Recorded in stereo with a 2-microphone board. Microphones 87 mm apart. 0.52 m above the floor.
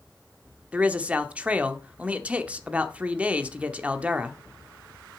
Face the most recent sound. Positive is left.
turn(degrees=-15)  # may be behind; listen again after turning